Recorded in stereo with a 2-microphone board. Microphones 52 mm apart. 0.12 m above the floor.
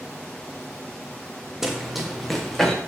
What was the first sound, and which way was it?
Running footsteps, 5° right (ahead or behind).